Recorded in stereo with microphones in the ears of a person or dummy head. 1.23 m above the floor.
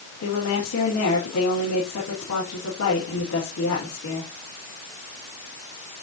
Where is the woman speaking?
85° left, 3.5 m.